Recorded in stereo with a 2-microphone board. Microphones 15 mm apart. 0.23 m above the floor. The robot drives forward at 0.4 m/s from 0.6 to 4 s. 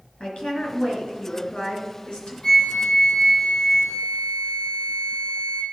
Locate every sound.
0.2 s a woman speaking: 65° left (ahead or behind), 3.5 m
2.4 s a flute: 65° left (ahead or behind), 2 m; by 5.6 s 50° left (ahead or behind), 2.5 m